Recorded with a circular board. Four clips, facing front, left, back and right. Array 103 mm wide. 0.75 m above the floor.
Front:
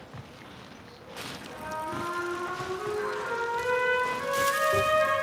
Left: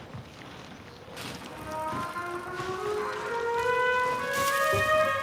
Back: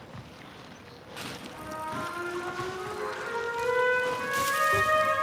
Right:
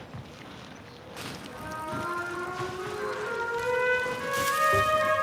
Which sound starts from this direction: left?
A trumpet, at 1.4 s.